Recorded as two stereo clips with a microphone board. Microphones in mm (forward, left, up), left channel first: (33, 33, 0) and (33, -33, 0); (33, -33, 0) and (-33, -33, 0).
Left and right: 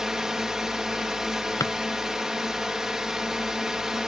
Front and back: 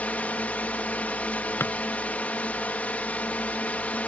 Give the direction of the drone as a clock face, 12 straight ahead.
1 o'clock.